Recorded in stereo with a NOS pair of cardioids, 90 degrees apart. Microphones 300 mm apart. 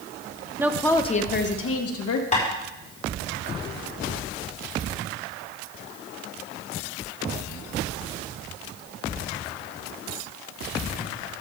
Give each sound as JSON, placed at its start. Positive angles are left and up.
{"t": 0.6, "sound": "a woman speaking", "azimuth_deg": -10, "distance_m": 1.2}
{"t": 2.3, "sound": "tapping", "azimuth_deg": 25, "distance_m": 4.5}